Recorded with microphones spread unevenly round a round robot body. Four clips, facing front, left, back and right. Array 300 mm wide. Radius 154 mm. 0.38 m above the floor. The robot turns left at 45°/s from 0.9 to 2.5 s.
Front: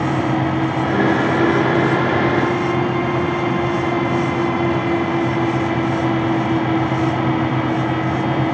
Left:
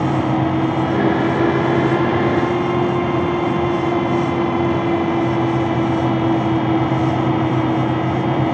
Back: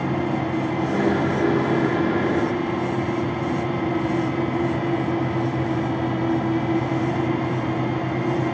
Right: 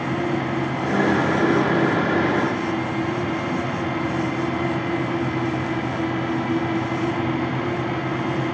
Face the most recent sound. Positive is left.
No sound to turn to.